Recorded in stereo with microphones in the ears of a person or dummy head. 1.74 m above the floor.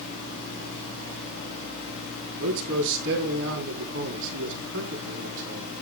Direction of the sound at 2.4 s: 65° right (ahead or behind).